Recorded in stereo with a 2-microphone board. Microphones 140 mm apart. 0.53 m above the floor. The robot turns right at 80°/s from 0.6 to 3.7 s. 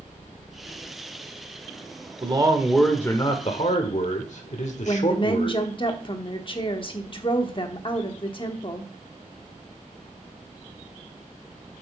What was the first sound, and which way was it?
A man speaking, 45° right.